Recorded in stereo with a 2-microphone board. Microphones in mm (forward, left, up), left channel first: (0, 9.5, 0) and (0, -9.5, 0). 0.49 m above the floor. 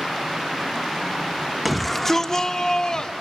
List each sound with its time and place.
1.6 s a shout: 5° right (ahead or behind), 0.9 m; by 3.1 s 40° left (ahead or behind), 1.3 m